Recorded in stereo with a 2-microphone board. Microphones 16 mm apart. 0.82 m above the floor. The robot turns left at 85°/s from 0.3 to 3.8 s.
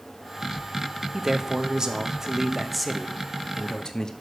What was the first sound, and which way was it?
A man speaking, 40° right.